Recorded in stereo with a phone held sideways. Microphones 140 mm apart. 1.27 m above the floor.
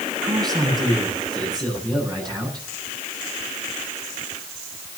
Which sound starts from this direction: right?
A man speaking, at 0.2 s.